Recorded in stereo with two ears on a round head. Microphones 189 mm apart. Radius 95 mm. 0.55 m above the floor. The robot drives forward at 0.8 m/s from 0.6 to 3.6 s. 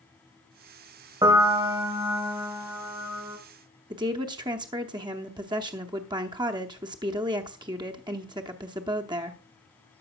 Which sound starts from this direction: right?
A woman speaking, at 3.9 s.